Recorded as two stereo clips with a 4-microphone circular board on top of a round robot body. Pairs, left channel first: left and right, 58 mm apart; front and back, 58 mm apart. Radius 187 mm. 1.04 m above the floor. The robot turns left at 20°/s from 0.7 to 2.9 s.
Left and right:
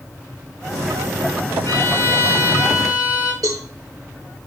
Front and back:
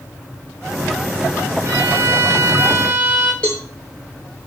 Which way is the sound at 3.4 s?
70° right.